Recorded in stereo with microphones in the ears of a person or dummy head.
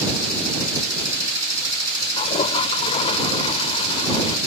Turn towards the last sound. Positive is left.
turn(degrees=20)  # may be behind; listen again after turning